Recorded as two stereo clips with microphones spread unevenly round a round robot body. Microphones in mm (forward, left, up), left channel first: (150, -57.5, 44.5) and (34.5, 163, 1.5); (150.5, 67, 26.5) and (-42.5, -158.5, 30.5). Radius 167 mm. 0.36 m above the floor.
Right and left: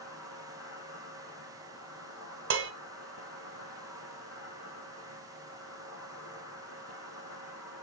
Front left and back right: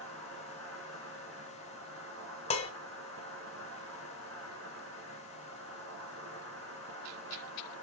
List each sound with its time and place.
0.0 s an insect: 90° right, 3.5 m
2.5 s dishes clattering: 115° left, 1.2 m